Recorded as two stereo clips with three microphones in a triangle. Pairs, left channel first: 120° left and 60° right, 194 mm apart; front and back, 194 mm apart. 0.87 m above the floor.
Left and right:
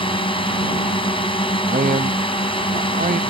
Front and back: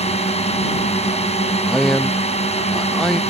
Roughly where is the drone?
Ahead left.